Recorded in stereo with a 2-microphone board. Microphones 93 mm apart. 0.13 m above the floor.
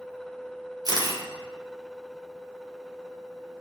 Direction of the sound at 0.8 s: 45° right (ahead or behind).